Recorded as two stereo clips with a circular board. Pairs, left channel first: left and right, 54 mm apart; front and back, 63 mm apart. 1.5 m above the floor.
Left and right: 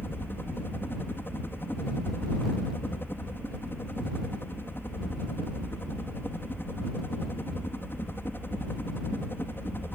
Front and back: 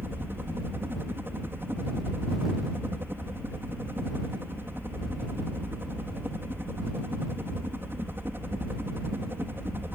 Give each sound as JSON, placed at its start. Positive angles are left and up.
{"t": 0.0, "sound": "a helicopter", "azimuth_deg": 130}